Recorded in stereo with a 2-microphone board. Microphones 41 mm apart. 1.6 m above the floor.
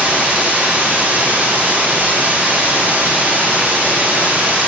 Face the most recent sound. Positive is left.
turn(degrees=-40)  # may be behind; listen again after turning